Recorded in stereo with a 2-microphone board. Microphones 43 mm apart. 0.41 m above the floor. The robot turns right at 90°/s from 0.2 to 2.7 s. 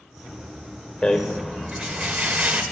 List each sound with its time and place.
1.0 s a rattle: 155° left, 1.6 m; by 2.6 s 60° right, 1.6 m